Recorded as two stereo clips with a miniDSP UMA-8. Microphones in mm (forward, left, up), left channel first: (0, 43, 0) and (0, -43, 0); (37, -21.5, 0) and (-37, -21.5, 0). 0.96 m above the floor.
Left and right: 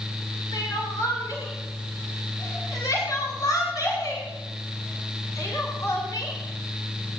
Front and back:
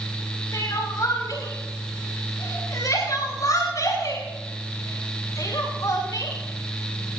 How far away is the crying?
About 9 m.